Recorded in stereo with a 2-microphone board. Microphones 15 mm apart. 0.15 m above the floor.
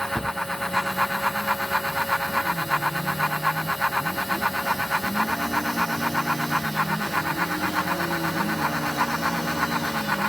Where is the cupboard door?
70° left (ahead or behind), 2 m.